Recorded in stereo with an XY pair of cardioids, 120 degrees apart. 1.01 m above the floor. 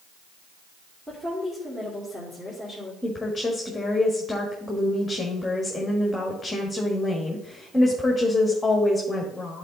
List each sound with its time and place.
1.1 s a woman speaking: 15° right, 2.5 m
3.0 s a woman speaking: 10° left, 1.5 m